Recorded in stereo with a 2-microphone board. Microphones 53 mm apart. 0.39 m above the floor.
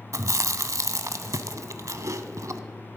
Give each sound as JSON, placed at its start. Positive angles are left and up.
{"t": 0.1, "sound": "chewing", "side_deg": -85, "distance_m": 0.6}